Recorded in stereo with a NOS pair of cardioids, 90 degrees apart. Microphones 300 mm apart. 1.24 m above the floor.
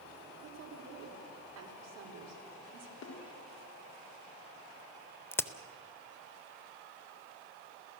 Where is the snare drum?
55° left, 4 m.